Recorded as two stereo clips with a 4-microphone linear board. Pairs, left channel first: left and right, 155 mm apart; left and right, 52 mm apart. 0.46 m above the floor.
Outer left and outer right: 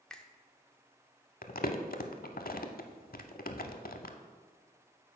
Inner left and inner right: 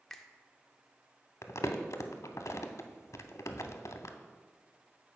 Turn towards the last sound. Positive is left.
turn(degrees=75)  # may be behind; listen again after turning